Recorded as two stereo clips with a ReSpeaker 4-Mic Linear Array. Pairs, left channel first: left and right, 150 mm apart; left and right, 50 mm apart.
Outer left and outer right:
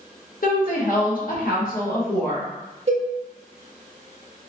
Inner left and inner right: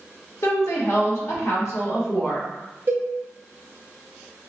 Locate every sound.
0.4 s a woman speaking: 65° left (ahead or behind), 0.9 m
2.9 s a cowbell: 40° right (ahead or behind), 0.7 m